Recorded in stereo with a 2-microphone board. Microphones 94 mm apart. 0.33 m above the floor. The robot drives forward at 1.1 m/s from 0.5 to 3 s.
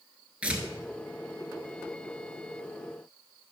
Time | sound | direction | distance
0.4 | tearing paper | 15° right (ahead or behind) | 1.1 m